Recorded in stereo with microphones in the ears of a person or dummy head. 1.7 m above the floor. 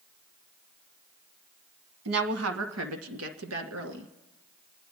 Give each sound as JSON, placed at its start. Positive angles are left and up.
{"t": 2.0, "sound": "a woman speaking", "side_deg": -80, "distance_m": 1.4}